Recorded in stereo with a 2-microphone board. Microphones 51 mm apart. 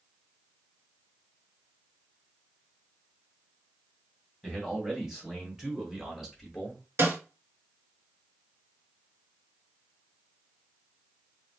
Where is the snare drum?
55° right (ahead or behind), 1.3 m.